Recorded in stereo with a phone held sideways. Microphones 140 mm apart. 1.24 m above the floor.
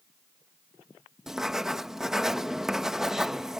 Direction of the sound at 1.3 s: 5° right (ahead or behind).